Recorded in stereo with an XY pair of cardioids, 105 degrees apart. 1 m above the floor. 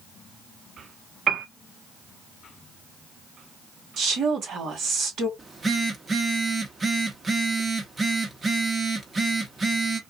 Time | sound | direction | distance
1.3 | a piano | 50° right | 0.7 m
4.0 | a woman speaking | 65° right | 1.6 m
5.4 | a phone buzzing | 30° right | 1.0 m